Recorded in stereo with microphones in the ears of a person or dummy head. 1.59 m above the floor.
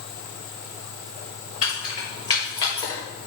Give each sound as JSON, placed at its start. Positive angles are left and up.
{"t": 1.6, "sound": "keys jangling", "side_deg": 40, "distance_m": 2.5}